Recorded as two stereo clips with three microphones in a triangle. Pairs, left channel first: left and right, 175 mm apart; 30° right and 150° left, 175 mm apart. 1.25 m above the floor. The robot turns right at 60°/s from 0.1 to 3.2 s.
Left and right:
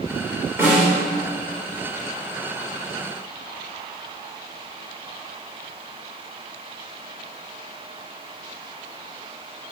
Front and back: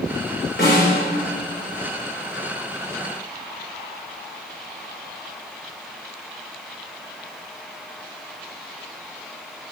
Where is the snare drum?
15° right, 4 m; by 0.9 s 10° left, 4 m.